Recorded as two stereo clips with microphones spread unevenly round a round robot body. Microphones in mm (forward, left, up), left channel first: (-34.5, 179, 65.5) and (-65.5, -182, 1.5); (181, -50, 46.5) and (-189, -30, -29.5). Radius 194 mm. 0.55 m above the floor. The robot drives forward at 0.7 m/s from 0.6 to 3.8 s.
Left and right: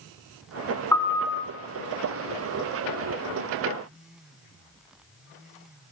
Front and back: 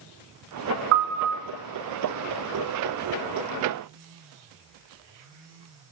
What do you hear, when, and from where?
0.9 s a piano: 165° left, 2.0 m; by 1.4 s 170° left, 2.5 m